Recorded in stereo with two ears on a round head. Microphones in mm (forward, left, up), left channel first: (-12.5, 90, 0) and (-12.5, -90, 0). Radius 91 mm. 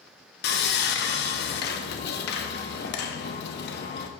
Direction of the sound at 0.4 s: 55° left (ahead or behind).